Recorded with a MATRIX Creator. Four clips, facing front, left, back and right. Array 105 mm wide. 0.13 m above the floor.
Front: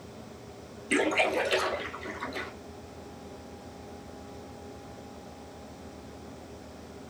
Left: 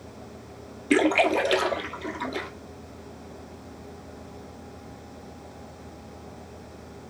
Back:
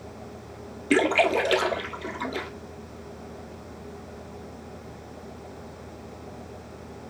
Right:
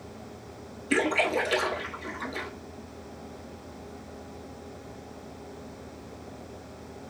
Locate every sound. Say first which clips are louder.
0.9 s a splash: left 5 dB, back 5 dB; 140° left, 1.1 m